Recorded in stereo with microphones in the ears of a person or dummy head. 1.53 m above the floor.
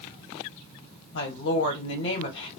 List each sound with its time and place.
1.1 s a woman speaking: 75° left (ahead or behind), 1.5 m